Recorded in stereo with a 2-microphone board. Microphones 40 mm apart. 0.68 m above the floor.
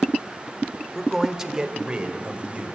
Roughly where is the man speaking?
Centre.